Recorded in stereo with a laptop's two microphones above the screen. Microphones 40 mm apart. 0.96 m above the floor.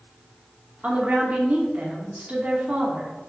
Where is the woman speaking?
40° right (ahead or behind), 2 m.